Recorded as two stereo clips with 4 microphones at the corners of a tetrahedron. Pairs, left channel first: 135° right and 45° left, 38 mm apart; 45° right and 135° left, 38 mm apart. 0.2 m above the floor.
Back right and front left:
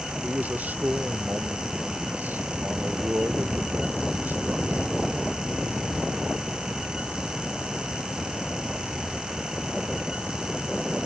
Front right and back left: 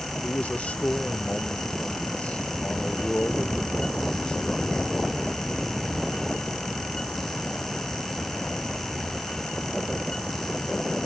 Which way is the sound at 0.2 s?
5° left.